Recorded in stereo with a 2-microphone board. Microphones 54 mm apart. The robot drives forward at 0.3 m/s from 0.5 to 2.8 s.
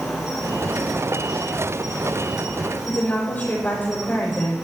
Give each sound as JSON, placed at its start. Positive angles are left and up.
{"t": 0.0, "sound": "an insect", "side_deg": -5, "distance_m": 7.0}
{"t": 2.9, "sound": "a woman speaking", "side_deg": 35, "distance_m": 7.0}